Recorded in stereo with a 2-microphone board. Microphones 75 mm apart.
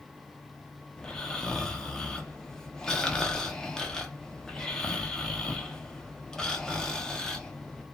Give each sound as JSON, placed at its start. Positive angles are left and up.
{"t": 1.0, "sound": "snoring", "side_deg": 10, "distance_m": 0.6}